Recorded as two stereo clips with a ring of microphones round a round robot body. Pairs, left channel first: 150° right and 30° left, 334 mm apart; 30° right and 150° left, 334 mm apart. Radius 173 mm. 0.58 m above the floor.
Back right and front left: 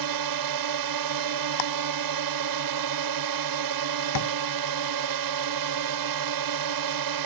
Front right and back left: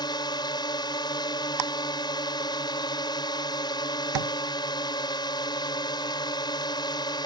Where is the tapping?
175° left.